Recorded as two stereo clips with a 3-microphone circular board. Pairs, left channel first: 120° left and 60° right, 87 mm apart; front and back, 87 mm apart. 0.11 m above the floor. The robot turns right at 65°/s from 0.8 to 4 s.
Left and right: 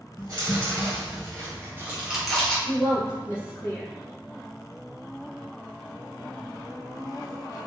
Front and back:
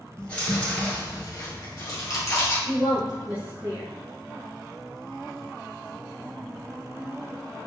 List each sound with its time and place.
0.2 s chewing: 65° right, 1.7 m; by 2.5 s 45° left, 1.7 m
2.6 s a woman speaking: 85° left, 1.9 m; by 3.9 s 165° left, 1.9 m